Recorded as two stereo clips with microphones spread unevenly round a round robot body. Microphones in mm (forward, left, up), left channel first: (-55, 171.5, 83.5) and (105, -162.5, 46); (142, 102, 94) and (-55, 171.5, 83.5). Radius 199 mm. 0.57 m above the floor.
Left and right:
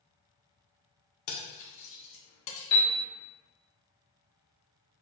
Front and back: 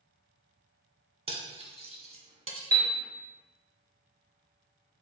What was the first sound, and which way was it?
Cutlery clinking, 95° left.